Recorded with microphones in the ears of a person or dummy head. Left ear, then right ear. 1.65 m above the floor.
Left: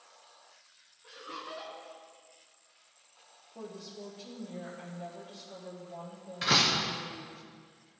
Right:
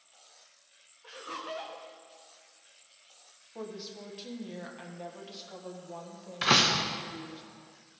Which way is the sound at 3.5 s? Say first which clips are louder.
Right 3 dB; 50° right (ahead or behind).